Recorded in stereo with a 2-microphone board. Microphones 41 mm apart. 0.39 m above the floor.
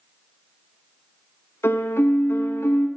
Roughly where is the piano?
Left.